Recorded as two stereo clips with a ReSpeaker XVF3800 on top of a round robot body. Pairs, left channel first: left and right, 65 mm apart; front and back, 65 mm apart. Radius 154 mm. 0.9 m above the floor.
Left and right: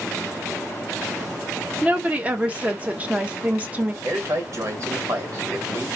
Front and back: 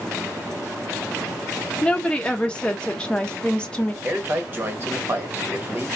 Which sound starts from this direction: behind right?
A man speaking, at 4.0 s.